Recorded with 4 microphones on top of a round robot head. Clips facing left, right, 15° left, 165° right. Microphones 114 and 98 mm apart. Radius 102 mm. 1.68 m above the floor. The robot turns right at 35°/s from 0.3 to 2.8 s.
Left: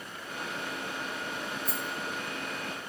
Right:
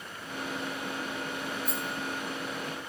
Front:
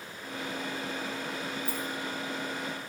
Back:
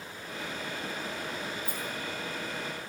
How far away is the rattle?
About 9 m.